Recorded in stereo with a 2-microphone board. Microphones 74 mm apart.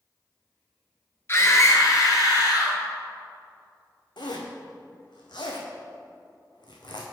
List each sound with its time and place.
1.3 s a scream: 35° left (ahead or behind), 1.4 m; by 2.8 s 60° left (ahead or behind), 3 m
4.2 s a zipper: 80° left, 1.2 m